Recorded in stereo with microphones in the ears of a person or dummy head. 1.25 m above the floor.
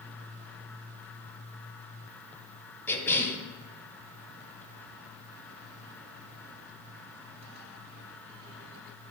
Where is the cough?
10° left (ahead or behind), 0.6 m.